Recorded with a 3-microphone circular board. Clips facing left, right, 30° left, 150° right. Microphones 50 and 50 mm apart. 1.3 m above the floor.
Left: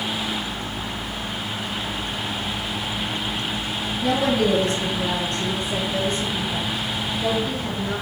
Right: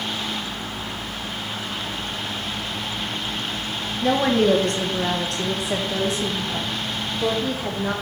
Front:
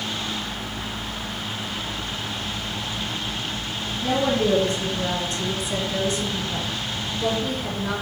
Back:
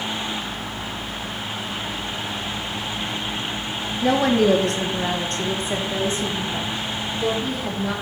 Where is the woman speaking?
150° right, 1.4 m; by 7.9 s 65° right, 3 m.